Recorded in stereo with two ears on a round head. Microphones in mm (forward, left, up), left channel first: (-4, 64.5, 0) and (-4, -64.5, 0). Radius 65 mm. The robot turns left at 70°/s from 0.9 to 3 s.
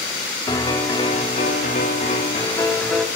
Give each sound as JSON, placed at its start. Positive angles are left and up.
{"t": 0.5, "sound": "a piano", "azimuth_deg": 145, "distance_m": 1.4}